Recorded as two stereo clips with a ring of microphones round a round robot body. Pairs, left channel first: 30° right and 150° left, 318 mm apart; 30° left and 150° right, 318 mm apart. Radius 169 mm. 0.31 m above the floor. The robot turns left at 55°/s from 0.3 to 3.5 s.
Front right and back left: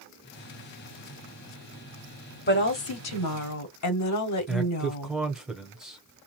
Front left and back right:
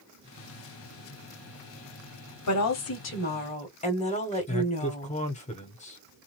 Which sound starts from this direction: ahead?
A woman speaking, at 2.5 s.